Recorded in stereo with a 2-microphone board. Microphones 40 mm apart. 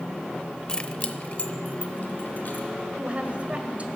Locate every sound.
0.7 s keys jangling: 20° left (ahead or behind), 0.6 m; by 2.7 s 50° left (ahead or behind), 3 m
3.0 s a woman speaking: 40° right (ahead or behind), 1.8 m